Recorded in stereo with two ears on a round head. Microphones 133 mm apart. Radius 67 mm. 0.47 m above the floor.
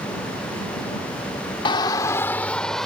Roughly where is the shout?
Left.